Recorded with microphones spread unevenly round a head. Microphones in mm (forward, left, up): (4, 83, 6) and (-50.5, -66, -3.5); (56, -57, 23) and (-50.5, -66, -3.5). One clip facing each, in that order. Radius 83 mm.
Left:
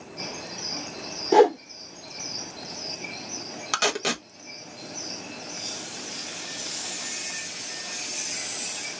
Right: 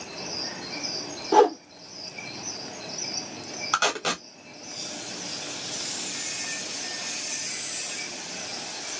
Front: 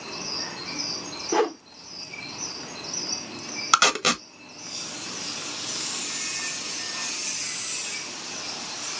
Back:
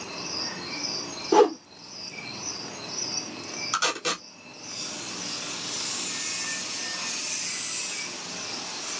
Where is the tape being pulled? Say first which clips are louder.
Left 1 dB, front 7 dB; 5° right, 1.3 m.